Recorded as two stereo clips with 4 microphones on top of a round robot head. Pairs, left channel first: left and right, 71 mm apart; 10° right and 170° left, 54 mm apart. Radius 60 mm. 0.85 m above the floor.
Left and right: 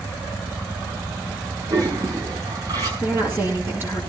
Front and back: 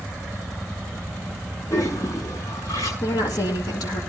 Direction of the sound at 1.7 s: 45° right.